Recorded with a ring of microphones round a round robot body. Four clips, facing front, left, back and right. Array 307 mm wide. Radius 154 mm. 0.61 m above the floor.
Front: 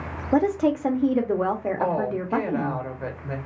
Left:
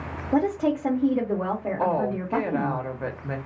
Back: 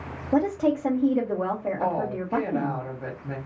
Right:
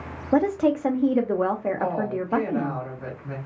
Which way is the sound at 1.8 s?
65° left.